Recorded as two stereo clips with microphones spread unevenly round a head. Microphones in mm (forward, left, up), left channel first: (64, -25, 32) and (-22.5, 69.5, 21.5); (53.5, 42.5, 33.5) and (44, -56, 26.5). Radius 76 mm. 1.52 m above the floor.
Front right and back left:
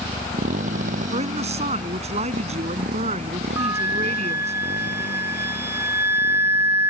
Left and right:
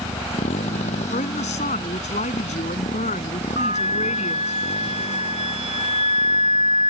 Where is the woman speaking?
100° left.